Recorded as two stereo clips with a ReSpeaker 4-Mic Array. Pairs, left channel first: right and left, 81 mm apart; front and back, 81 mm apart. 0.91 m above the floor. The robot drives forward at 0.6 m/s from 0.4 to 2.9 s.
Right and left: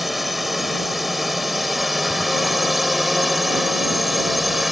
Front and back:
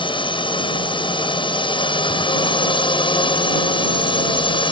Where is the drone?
Straight ahead.